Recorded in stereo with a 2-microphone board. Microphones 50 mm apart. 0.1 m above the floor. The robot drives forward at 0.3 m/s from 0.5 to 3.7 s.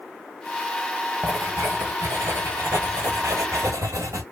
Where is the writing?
60° right (ahead or behind), 1.2 m; by 4.2 s 80° right, 1.1 m.